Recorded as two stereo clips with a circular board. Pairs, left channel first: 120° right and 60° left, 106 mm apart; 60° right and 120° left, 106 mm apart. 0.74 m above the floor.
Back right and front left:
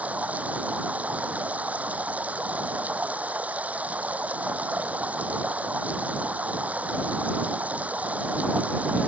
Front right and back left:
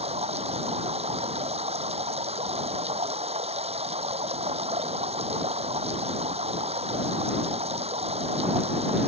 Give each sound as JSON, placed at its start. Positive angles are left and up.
{"t": 0.0, "sound": "running water", "azimuth_deg": 135}